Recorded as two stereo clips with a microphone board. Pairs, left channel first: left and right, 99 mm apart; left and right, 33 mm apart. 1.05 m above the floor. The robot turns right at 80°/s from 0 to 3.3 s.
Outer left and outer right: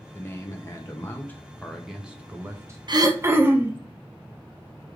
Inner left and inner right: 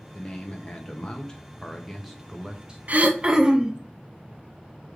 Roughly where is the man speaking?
Centre.